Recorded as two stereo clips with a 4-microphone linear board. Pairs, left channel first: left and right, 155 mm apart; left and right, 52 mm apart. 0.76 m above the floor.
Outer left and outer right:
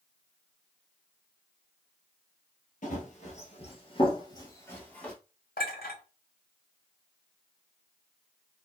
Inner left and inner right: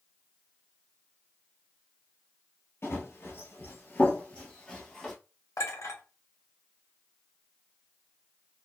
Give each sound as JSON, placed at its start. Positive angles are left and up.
{"t": 2.8, "sound": "running footsteps", "side_deg": 55, "distance_m": 1.2}
{"t": 5.6, "sound": "a clink", "side_deg": 75, "distance_m": 1.5}